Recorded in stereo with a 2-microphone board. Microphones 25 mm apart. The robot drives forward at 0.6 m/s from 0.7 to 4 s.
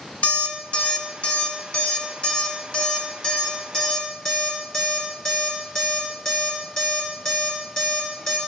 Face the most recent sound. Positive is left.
turn(degrees=30)  # may be behind; listen again after turning